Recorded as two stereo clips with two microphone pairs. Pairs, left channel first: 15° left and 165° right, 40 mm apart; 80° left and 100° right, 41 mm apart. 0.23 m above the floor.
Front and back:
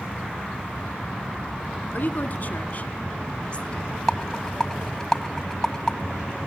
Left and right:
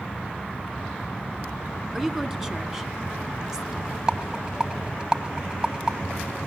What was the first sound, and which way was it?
A woman speaking, 20° right.